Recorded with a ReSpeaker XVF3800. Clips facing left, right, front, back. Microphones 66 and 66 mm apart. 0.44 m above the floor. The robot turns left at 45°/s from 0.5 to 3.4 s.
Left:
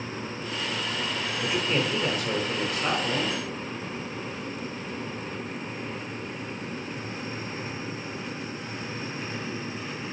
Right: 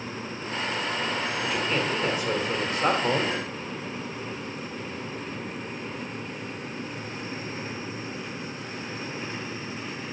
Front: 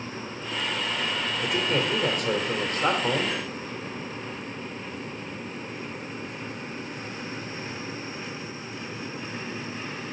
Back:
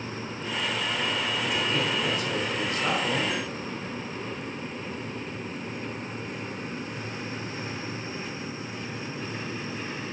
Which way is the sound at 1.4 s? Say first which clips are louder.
Left 2 dB, front 4 dB; 30° left.